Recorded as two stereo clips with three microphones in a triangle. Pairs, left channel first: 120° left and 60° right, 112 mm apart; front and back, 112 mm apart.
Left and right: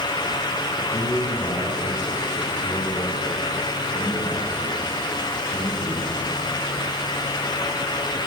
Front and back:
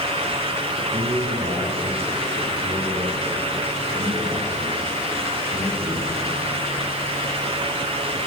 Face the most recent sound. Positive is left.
turn(degrees=175)